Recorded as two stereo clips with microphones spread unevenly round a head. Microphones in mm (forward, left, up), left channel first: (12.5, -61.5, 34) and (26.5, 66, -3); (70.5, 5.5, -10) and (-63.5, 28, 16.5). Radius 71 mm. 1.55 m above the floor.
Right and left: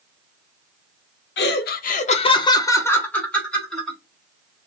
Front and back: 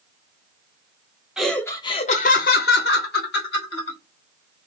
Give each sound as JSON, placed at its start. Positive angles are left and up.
{"t": 1.4, "sound": "laughter", "azimuth_deg": -105, "distance_m": 0.6}